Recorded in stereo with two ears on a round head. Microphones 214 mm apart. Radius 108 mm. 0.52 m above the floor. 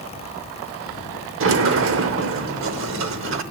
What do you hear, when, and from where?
1.4 s a sliding door: 55° right (ahead or behind), 0.8 m